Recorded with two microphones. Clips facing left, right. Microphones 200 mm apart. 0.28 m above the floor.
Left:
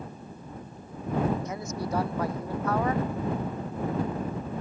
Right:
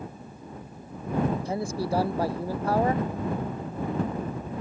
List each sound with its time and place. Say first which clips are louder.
1.4 s a man speaking: right 4 dB; 30° right (ahead or behind)